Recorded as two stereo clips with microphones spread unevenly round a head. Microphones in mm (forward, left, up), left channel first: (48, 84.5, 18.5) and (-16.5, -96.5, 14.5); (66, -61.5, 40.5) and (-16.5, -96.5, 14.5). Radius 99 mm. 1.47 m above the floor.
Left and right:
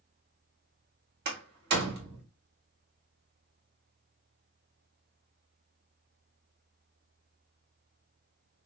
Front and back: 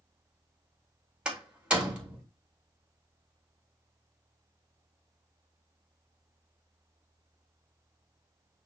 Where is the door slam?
75° right, 1.9 m.